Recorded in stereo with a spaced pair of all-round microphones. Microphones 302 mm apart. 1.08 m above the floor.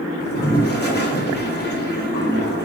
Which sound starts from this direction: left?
A toilet flushing, at 0.2 s.